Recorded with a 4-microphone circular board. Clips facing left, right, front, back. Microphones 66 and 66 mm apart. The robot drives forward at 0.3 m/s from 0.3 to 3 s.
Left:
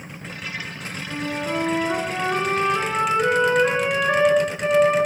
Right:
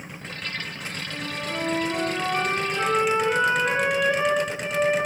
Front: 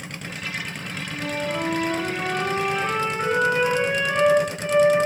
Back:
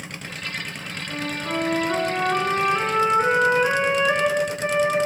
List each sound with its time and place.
1.1 s a flute: 120° left, 8.5 m; by 5.0 s 125° left, 9 m